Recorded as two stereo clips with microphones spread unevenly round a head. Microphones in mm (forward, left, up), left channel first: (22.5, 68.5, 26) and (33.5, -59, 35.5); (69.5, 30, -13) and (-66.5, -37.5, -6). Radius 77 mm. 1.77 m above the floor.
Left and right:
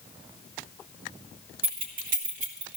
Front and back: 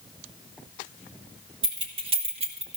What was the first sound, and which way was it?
Keys jangling, 100° right.